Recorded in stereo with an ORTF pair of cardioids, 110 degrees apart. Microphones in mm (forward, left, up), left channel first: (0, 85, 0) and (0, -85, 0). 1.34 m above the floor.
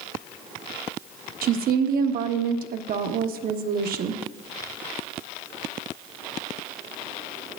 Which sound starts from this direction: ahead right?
A woman speaking, at 1.4 s.